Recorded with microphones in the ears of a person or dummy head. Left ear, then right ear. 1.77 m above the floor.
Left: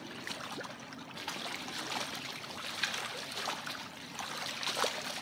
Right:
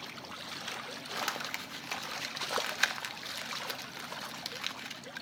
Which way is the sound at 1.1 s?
40° right (ahead or behind).